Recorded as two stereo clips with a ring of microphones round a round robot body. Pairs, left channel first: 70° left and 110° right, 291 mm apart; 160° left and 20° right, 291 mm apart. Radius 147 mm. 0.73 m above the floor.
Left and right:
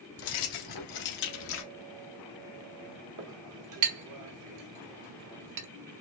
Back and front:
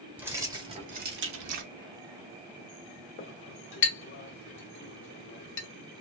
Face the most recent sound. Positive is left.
turn(degrees=-145)